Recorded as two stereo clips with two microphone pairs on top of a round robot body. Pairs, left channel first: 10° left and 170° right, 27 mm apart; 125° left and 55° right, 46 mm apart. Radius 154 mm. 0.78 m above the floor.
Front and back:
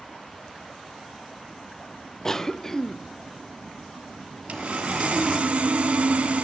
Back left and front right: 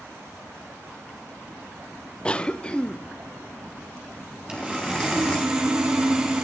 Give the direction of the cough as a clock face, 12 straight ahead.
10 o'clock.